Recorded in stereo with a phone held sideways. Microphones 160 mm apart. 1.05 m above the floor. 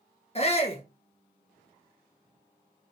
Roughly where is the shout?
Left.